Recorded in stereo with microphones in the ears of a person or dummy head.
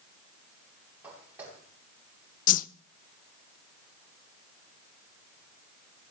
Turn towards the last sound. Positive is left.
turn(degrees=40)  # may be behind; listen again after turning